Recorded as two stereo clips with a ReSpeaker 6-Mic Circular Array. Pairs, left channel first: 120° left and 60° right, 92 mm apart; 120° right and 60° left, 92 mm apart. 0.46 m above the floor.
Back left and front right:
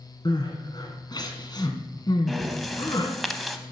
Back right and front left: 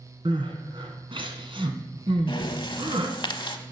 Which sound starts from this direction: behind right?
Breathing, at 2.3 s.